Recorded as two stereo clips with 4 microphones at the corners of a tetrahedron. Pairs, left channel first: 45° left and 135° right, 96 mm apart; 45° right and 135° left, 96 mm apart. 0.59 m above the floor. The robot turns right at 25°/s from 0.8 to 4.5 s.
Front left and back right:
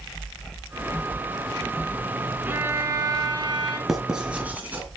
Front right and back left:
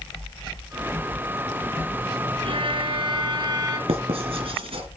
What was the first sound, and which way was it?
A violin, 155° left.